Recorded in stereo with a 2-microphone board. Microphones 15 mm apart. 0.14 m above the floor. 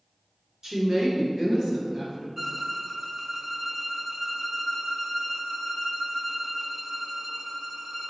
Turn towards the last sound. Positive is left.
turn(degrees=-20)  # may be behind; listen again after turning